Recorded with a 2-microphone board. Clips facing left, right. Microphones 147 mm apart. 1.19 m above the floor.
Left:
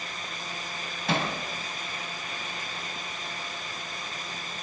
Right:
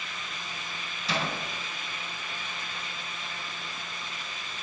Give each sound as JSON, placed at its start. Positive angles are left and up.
{"t": 1.1, "sound": "hammering", "side_deg": 55, "distance_m": 4.5}